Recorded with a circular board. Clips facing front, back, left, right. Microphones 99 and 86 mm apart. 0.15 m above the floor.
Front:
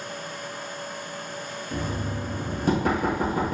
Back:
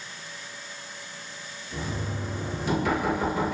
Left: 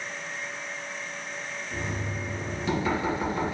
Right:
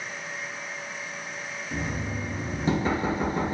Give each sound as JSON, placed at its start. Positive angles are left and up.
{"t": 1.7, "sound": "knocking", "azimuth_deg": -40, "distance_m": 2.0}